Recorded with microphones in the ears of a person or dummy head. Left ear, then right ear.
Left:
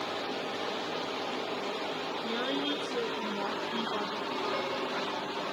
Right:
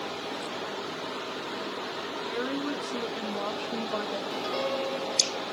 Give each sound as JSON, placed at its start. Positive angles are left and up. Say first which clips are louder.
{"t": 2.2, "sound": "a woman speaking", "louder": "even", "side_deg": 10, "distance_m": 0.9}
{"t": 4.3, "sound": "a piano", "louder": "right 3 dB", "side_deg": -15, "distance_m": 0.7}